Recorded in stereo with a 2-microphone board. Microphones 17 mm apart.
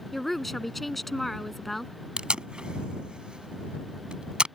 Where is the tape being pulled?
65° right (ahead or behind).